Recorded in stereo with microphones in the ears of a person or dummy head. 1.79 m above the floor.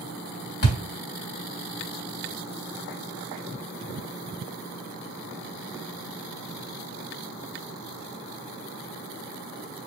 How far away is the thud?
About 3 m.